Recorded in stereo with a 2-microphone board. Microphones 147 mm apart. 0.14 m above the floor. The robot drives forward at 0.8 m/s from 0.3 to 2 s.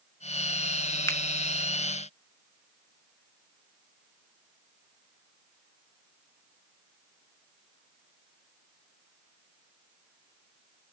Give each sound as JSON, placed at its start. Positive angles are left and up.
{"t": 1.1, "sound": "a finger snap", "side_deg": 20, "distance_m": 0.9}